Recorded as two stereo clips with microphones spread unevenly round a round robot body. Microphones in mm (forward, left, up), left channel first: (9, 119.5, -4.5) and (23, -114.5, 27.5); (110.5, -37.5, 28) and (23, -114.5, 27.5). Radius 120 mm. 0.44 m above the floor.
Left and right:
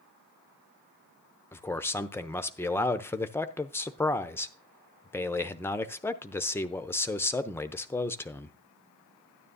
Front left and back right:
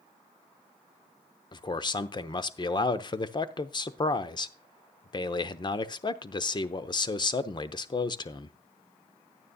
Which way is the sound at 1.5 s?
30° left.